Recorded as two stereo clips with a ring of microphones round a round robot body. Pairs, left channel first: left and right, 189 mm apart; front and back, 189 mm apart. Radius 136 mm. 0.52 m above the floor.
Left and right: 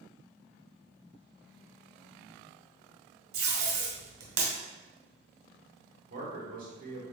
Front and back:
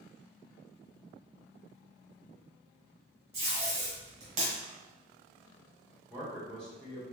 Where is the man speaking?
85° right, 1.4 m.